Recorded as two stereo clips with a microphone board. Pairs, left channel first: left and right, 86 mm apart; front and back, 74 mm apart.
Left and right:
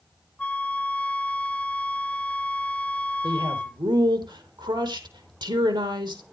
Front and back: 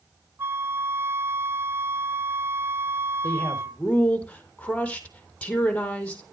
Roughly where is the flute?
Behind left.